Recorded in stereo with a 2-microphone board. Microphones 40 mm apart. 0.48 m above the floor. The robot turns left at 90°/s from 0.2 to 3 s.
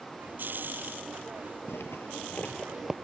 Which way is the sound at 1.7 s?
75° left (ahead or behind).